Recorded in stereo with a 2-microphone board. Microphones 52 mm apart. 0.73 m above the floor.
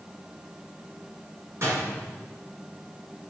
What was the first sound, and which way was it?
A door slam, 55° right (ahead or behind).